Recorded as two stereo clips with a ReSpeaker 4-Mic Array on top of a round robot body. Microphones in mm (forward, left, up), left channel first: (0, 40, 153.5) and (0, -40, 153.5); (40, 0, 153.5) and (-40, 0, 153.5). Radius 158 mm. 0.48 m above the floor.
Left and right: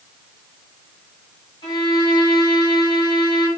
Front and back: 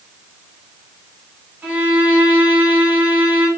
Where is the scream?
No scream in this recording.